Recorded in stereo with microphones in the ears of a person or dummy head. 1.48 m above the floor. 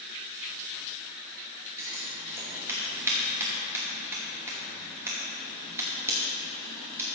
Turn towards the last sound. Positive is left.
turn(degrees=-15)  # may be behind; listen again after turning